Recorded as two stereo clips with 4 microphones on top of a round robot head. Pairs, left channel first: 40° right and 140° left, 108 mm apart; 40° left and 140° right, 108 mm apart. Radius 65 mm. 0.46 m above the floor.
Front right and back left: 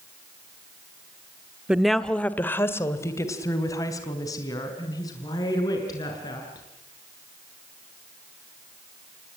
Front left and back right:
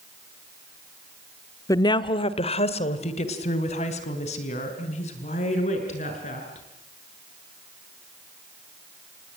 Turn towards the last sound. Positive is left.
turn(degrees=15)